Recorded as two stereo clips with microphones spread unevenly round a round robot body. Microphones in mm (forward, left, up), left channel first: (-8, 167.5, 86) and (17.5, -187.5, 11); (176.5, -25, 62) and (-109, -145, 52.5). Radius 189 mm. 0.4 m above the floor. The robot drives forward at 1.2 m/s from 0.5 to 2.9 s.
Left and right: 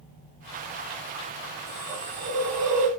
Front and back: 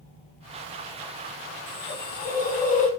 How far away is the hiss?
About 6.5 m.